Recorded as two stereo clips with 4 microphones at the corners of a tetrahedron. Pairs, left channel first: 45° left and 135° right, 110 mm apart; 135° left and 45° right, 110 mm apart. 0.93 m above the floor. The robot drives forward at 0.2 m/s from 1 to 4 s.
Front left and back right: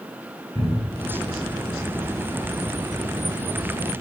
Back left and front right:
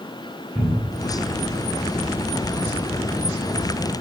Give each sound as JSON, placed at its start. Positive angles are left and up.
{"t": 0.6, "sound": "a cupboard door", "azimuth_deg": -5, "distance_m": 1.4}